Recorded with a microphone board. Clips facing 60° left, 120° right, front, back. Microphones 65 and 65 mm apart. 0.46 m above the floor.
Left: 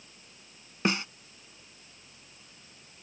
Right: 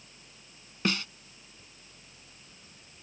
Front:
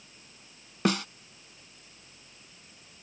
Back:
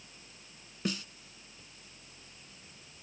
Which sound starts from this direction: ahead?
A snare drum, at 0.8 s.